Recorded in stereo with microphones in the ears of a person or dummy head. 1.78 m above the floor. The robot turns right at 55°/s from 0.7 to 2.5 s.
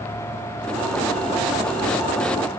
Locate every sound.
Only background noise.